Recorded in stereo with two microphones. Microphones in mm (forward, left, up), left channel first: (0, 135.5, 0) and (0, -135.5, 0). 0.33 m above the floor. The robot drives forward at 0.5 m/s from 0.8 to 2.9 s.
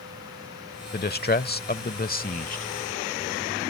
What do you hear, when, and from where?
0.9 s a man speaking: 35° left (ahead or behind); by 2.6 s 30° left (ahead or behind)